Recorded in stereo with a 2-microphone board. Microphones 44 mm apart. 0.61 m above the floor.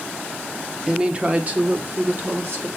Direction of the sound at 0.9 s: 15° right (ahead or behind).